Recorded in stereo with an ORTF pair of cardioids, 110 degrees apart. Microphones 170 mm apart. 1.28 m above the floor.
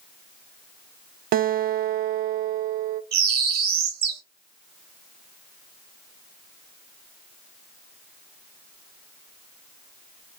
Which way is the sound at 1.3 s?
60° right.